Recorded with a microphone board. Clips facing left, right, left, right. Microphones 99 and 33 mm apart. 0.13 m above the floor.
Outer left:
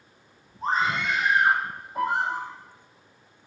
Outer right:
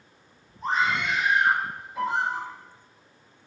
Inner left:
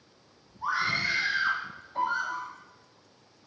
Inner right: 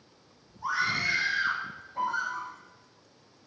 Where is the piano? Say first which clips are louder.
Outer left 1 dB, inner left 1 dB; 45° left (ahead or behind), 6.5 m.